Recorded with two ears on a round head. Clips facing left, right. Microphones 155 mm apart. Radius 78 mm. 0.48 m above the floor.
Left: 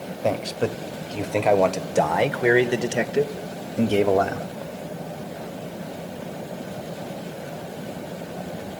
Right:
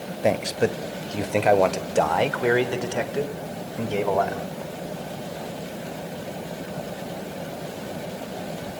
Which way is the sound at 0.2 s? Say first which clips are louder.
Right 2 dB; 15° right (ahead or behind).